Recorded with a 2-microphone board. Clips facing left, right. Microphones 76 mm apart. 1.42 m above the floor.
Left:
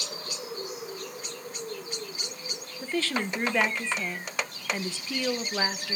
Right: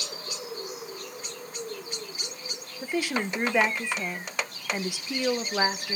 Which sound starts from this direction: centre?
A woman speaking, at 2.8 s.